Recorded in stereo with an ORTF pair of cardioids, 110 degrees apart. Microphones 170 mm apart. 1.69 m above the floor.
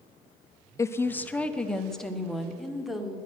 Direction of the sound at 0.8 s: 20° left.